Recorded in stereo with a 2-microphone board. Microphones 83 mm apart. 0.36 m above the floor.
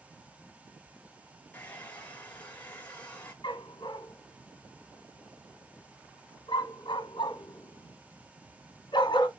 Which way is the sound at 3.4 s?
65° left (ahead or behind).